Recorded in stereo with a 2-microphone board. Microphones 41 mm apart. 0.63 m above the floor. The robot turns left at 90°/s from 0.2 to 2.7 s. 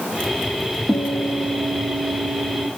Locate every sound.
0.9 s a guitar: 145° right, 0.6 m; by 2.7 s 50° left, 0.6 m